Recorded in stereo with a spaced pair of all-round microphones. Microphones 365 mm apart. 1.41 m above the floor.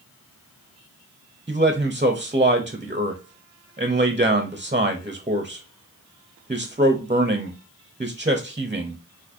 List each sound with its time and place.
1.5 s a man speaking: 20° right (ahead or behind), 0.6 m